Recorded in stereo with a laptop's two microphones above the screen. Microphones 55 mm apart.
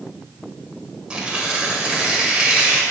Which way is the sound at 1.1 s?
20° right (ahead or behind).